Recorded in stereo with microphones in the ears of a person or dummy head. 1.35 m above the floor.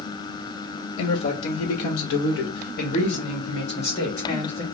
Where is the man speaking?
50° left (ahead or behind), 1.0 m; by 4.6 s 25° left (ahead or behind), 2.5 m.